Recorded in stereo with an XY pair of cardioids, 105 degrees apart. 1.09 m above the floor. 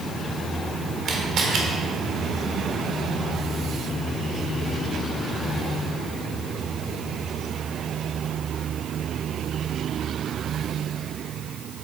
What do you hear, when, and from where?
1.1 s a camera shutter: 60° right, 1.5 m